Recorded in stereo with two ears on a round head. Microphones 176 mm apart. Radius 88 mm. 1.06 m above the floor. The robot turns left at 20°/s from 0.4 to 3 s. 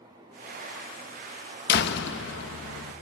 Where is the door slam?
55° left (ahead or behind), 0.8 m; by 2.9 s 80° left, 0.8 m.